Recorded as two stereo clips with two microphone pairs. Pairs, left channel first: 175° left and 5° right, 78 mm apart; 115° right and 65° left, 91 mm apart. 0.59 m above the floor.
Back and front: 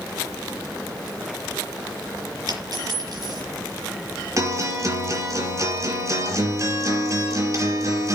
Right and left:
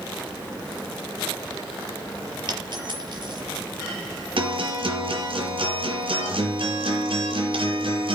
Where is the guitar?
40° left, 5 m.